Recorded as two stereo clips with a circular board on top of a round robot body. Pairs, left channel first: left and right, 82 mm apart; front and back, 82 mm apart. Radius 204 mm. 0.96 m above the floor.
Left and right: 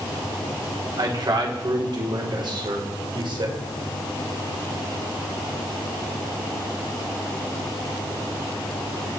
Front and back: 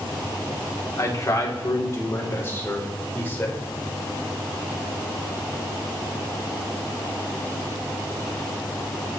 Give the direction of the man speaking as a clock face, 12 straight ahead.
2 o'clock.